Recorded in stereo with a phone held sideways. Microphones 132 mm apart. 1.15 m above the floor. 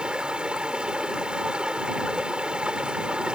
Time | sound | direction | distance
0.0 | running water | 10° right (ahead or behind) | ?